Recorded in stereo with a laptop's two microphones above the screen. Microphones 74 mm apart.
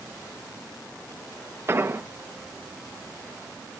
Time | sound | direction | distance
1.7 | an explosion | 30° right (ahead or behind) | 0.8 m